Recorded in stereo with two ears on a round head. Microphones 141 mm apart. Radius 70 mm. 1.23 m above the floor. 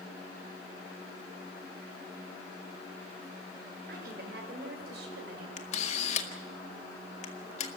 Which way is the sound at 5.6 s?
45° left (ahead or behind).